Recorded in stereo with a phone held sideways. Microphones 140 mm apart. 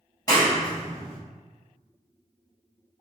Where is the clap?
25° left (ahead or behind), 1.3 m.